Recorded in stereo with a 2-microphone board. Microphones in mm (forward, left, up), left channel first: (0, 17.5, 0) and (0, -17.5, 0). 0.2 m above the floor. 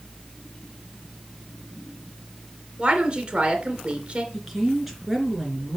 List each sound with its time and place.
2.8 s a woman speaking: 25° right (ahead or behind), 2.5 m
4.3 s a woman speaking: 5° right (ahead or behind), 2.5 m